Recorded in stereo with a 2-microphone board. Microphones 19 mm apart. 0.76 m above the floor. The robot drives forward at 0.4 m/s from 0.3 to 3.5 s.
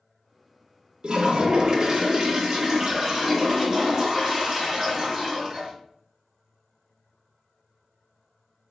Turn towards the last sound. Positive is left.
turn(degrees=-20)  # may be behind; listen again after turning